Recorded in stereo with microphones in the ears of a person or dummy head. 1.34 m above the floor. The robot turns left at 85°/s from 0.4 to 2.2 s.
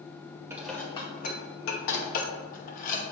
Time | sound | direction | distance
0.5 | dishes clattering | 15° right (ahead or behind) | 1.1 m